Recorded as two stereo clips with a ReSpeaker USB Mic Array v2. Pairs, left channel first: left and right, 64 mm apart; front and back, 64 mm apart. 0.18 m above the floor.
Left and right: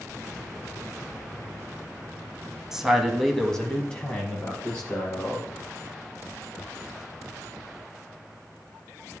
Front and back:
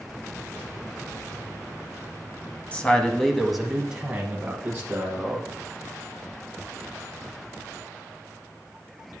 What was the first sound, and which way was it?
A man speaking, 20° right.